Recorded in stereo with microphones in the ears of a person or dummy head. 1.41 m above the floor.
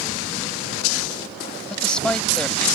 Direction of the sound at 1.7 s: 5° left (ahead or behind).